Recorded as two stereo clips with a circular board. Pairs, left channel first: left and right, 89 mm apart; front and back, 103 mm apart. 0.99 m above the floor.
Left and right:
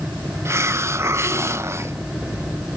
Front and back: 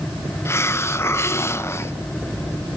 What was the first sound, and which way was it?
A hiss, 50° right.